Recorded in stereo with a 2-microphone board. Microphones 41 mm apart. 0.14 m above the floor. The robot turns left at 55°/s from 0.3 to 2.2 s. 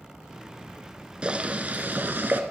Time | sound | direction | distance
1.2 | boiling | 35° right | 1.4 m